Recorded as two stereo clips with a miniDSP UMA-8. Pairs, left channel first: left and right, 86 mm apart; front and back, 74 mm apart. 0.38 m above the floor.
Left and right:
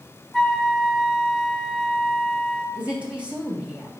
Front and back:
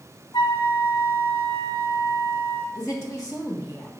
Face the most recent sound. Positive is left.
turn(degrees=-15)